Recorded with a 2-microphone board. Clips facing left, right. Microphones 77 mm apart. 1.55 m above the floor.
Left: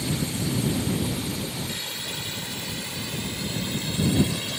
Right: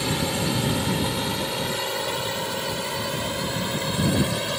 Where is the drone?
70° right (ahead or behind); by 4.6 s 60° right (ahead or behind).